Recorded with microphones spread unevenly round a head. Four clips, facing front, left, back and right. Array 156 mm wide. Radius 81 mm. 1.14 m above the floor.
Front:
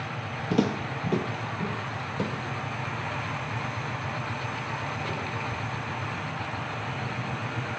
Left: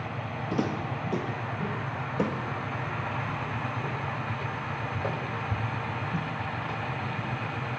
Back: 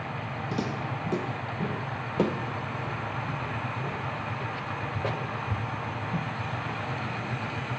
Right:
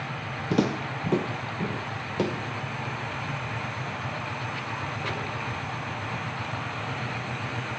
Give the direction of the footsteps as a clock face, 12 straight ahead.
2 o'clock.